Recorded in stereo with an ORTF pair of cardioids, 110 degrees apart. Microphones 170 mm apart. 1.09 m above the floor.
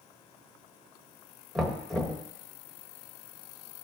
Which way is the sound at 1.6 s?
Straight ahead.